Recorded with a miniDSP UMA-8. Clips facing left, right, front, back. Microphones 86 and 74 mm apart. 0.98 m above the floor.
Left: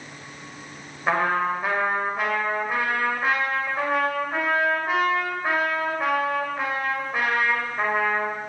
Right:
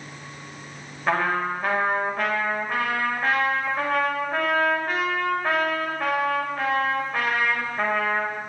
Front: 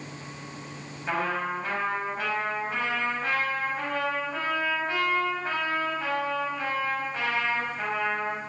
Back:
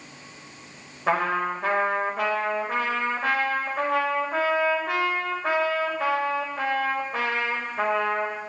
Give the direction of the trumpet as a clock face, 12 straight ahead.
6 o'clock.